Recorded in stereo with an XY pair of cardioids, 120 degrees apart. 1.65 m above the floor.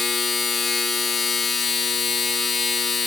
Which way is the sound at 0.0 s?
25° left.